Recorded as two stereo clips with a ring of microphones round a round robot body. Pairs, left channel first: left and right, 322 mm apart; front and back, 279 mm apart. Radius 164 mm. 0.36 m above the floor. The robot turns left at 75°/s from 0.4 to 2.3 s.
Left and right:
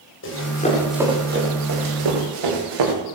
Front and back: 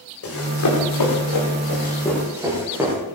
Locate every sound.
0.2 s running footsteps: 35° left, 9 m; by 2.9 s 95° right, 8 m